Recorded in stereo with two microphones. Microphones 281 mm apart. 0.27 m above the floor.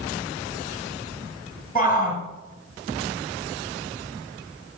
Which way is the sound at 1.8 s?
30° left (ahead or behind).